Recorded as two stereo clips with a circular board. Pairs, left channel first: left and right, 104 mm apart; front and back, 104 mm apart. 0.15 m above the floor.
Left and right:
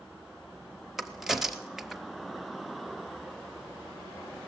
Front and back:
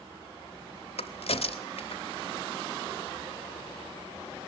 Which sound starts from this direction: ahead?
A crack, at 1.0 s.